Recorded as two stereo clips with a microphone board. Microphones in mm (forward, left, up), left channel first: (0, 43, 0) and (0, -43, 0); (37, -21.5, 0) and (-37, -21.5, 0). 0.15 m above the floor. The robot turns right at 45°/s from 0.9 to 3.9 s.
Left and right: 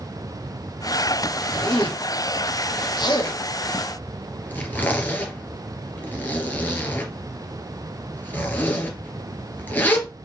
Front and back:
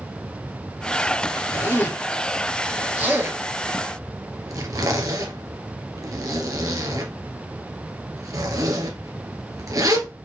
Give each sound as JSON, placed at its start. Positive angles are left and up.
{"t": 1.5, "sound": "a zipper", "azimuth_deg": 50, "distance_m": 2.5}